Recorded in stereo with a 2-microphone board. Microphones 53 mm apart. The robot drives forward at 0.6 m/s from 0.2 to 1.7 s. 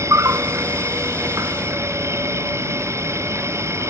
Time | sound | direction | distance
0.0 | an insect | 65° right (ahead or behind) | ?